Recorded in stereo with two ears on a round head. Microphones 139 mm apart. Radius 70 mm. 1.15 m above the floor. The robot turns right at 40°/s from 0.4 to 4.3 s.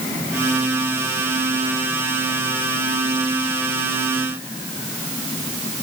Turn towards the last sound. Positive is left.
No sound to turn to.